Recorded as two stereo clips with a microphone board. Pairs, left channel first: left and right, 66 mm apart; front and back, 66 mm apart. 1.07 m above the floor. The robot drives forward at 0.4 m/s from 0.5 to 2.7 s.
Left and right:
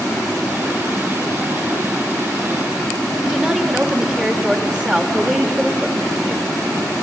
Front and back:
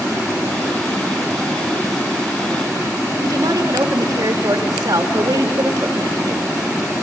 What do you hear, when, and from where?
3.2 s a woman speaking: 170° right, 1.7 m